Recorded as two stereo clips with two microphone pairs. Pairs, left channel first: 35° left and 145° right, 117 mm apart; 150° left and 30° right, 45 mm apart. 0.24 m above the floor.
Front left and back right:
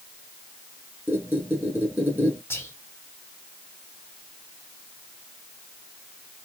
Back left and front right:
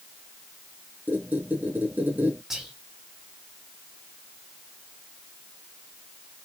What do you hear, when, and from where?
1.1 s a squeak: 75° right, 2 m
2.5 s whispering: 30° left, 1.3 m